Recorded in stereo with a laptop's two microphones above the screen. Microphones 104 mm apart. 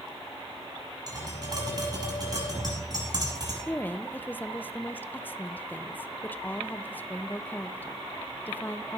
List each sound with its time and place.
1.1 s tapping: 35° right (ahead or behind), 7 m
3.7 s a woman speaking: 20° left (ahead or behind), 0.5 m